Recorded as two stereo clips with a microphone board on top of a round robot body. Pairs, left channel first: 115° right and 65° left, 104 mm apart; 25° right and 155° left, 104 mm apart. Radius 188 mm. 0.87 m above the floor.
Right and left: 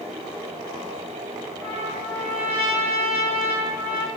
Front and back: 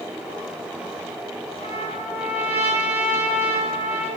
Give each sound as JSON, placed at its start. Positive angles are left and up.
{"t": 1.6, "sound": "a trumpet", "azimuth_deg": -40, "distance_m": 7.5}